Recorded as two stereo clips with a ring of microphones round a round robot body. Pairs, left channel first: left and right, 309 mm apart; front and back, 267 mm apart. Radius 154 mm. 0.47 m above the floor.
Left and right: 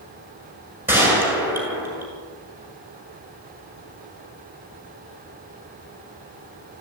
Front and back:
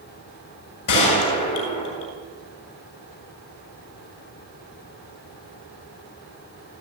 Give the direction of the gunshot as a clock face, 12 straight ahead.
12 o'clock.